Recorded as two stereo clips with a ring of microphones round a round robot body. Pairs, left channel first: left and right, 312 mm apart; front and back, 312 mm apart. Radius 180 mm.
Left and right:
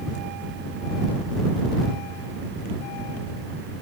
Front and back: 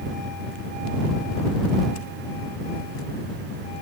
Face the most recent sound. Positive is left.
No sound to turn to.